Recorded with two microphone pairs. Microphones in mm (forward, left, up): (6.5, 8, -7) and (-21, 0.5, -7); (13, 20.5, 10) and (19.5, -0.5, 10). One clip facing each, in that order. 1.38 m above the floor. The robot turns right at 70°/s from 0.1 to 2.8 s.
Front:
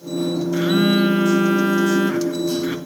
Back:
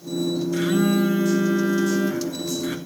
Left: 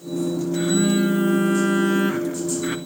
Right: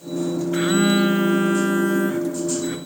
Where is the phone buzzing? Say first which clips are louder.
Front 4 dB, right 2 dB; 65° right, 1.4 m; by 2.8 s 90° left, 1.4 m.